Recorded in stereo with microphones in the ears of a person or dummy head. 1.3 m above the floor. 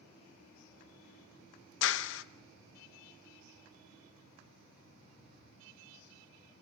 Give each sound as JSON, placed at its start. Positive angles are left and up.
{"t": 1.8, "sound": "a clap", "side_deg": 75, "distance_m": 1.0}